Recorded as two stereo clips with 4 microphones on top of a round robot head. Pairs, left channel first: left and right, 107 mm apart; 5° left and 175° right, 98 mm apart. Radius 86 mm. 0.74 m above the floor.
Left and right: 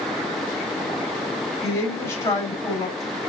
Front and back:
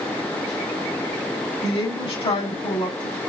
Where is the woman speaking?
30° left, 4 m.